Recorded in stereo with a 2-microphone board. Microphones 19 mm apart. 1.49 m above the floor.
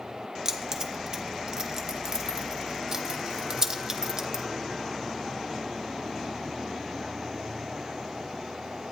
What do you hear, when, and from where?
0.5 s keys jangling: 25° right (ahead or behind), 1.1 m